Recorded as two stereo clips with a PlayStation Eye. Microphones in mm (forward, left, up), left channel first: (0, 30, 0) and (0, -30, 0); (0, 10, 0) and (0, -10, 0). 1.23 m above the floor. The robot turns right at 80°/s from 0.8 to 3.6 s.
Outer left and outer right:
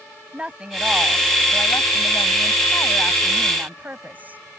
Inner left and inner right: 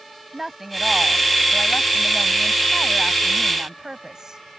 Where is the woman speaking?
15° right; by 4.4 s 150° right.